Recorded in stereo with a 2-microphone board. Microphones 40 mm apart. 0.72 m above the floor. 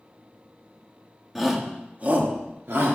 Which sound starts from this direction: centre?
A shout, at 1.4 s.